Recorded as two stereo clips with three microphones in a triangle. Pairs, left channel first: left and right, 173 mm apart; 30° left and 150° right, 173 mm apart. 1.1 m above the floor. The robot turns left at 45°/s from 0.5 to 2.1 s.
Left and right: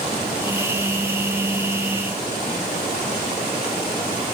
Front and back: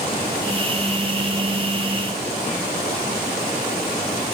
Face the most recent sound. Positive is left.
No sound to turn to.